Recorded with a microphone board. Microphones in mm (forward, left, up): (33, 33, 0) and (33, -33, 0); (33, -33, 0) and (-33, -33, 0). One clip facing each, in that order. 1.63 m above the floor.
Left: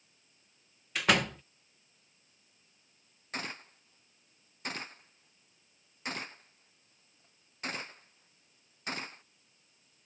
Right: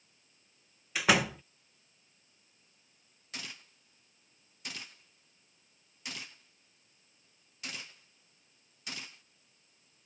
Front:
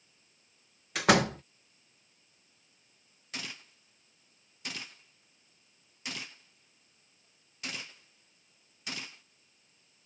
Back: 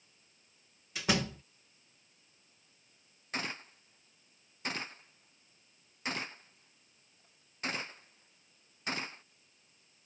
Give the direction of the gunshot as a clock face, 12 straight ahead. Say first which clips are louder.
Left 7 dB, back 5 dB; 8 o'clock.